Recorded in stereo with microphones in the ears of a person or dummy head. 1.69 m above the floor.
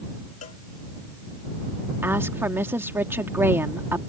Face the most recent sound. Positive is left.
turn(degrees=-10)  # may be behind; listen again after turning